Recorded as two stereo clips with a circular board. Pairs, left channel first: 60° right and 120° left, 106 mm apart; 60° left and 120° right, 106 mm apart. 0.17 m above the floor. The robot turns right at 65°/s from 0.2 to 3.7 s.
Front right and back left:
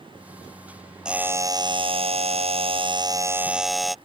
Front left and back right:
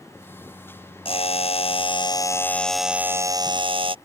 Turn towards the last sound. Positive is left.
turn(degrees=-150)